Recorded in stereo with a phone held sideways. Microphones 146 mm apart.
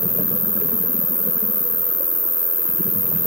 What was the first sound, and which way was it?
An insect, 20° left (ahead or behind).